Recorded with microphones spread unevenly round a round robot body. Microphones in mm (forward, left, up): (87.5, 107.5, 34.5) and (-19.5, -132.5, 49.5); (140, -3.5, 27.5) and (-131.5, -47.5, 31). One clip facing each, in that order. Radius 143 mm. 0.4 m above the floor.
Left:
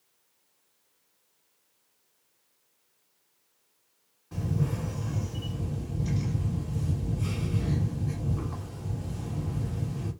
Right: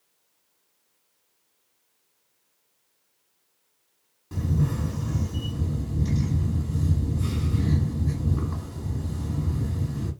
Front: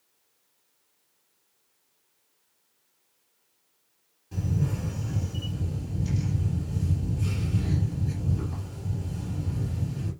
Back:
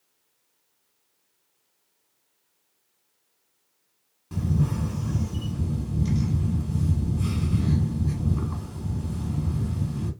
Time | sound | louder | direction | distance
4.3 | a camera shutter | right 4 dB, back 4 dB | 170° right | 1.5 m